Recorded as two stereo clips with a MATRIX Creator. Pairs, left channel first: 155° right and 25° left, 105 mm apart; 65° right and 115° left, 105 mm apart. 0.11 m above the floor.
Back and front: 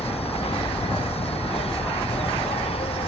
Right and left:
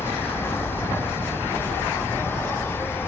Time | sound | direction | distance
0.0 | an insect | 135° right | ?